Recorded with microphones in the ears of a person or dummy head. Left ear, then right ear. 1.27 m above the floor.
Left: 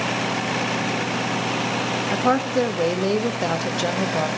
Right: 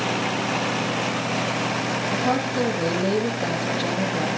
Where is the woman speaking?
55° left (ahead or behind), 1.3 m.